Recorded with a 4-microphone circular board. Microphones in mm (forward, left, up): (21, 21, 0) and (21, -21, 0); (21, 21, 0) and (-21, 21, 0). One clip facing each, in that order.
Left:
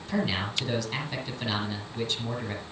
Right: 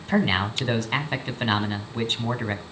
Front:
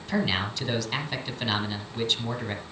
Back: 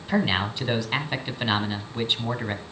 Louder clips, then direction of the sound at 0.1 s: Right 6 dB, back 3 dB; 115° right.